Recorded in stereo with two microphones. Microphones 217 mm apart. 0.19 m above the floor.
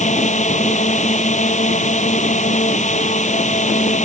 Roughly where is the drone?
Left.